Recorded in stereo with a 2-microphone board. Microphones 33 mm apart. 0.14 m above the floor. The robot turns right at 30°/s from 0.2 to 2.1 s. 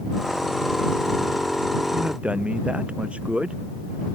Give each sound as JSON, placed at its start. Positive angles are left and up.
{"t": 1.9, "sound": "a man speaking", "side_deg": -50}